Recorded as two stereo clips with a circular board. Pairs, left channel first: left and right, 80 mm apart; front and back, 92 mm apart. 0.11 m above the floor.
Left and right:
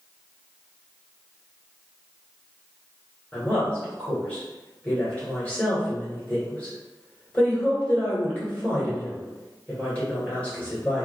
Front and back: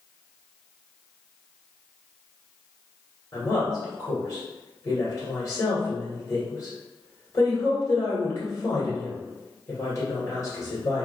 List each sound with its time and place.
3.3 s a woman speaking: 25° left, 1.5 m